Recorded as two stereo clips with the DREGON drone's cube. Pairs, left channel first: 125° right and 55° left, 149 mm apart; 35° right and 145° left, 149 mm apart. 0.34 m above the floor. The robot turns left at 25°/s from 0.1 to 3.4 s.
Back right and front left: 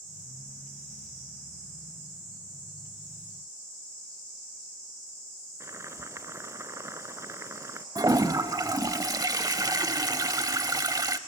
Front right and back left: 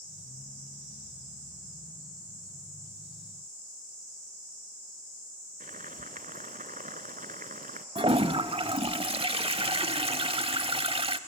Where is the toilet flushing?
110° left, 0.7 m.